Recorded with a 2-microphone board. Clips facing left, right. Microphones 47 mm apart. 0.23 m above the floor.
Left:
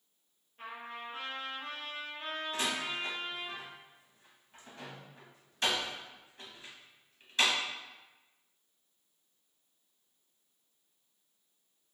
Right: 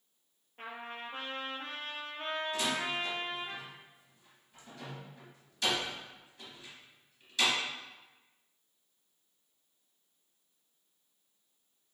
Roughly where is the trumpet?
Right.